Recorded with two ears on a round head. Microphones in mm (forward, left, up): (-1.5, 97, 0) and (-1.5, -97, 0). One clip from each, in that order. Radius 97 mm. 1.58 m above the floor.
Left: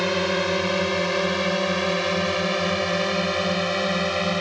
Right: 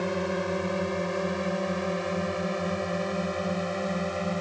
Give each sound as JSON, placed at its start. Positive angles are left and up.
{"t": 0.0, "sound": "a drone", "side_deg": 80}